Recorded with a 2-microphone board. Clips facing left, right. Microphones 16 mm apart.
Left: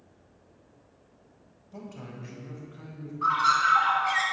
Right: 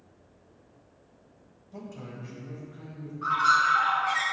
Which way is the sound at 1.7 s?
15° left (ahead or behind).